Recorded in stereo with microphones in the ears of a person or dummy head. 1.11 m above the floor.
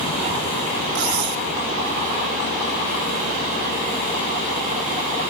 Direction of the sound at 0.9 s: 55° right (ahead or behind).